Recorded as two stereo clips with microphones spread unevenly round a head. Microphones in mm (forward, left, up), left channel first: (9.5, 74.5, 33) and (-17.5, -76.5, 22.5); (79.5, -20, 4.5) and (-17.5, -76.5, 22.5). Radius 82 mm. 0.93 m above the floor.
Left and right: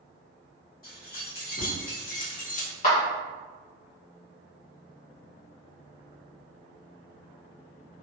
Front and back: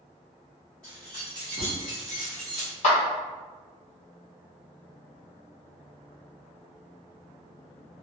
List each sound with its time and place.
0.8 s keys jangling: 115° left, 1.5 m
2.8 s a clap: 45° left, 1.4 m